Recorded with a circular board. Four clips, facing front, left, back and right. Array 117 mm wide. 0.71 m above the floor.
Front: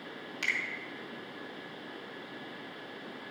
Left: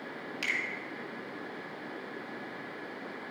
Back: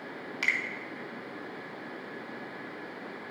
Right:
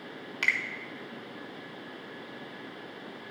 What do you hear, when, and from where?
0.4 s a finger snap: 125° right, 1.2 m